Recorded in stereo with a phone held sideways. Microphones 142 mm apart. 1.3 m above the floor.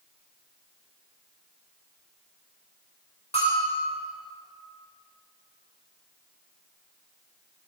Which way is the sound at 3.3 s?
50° left (ahead or behind).